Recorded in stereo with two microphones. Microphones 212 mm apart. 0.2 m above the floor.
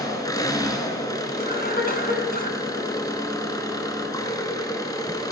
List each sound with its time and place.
0.0 s an engine running: 15° left (ahead or behind), 1.2 m
1.4 s a cough: 45° left (ahead or behind), 1.8 m